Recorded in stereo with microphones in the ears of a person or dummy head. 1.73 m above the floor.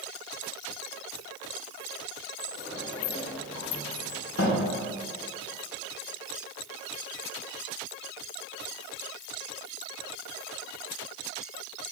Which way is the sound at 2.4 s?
85° left.